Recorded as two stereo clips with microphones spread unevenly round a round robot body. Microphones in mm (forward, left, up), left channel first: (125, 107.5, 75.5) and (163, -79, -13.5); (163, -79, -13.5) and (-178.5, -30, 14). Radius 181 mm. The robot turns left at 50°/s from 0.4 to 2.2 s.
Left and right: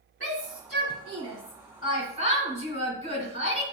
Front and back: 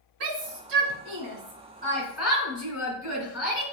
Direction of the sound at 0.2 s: 175° left.